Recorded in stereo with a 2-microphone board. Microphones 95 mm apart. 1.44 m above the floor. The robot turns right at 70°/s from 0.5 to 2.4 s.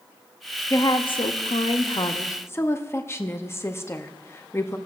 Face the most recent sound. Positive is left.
turn(degrees=155)